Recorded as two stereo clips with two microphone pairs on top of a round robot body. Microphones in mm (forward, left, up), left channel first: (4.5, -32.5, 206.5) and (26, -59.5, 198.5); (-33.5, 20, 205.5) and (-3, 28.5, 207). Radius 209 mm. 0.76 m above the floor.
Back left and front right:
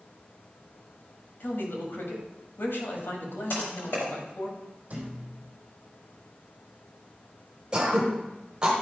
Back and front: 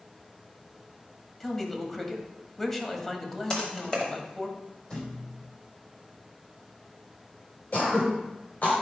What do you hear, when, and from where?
1.4 s a man speaking: 120° left, 2 m
3.5 s typing on a keyboard: 125° left, 0.9 m
4.9 s a thud: 105° right, 3 m
7.7 s throat clearing: 120° right, 1.4 m